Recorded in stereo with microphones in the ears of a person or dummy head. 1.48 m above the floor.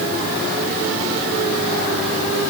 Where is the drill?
No drill in this recording.